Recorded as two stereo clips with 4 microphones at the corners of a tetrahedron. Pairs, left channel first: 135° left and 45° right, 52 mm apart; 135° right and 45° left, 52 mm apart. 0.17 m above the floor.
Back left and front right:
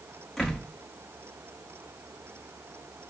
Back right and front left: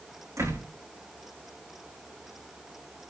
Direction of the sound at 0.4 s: 50° left.